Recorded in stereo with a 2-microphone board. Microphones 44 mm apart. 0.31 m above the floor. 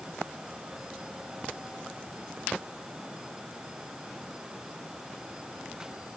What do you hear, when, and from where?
Only background noise.